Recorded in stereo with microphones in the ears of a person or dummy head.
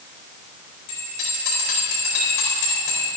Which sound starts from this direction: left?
A bell, at 0.9 s.